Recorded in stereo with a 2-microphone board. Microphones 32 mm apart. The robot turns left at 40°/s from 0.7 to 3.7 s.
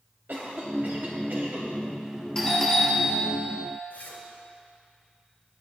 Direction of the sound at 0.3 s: 80° right.